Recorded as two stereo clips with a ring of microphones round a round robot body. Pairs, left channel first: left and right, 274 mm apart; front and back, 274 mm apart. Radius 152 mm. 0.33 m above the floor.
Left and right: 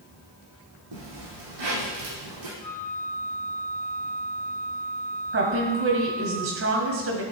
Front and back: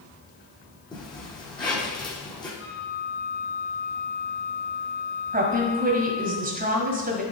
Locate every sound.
0.9 s a zipper: 75° right, 4 m
2.6 s a flute: 75° right, 3.5 m
5.3 s a woman speaking: 125° right, 1.8 m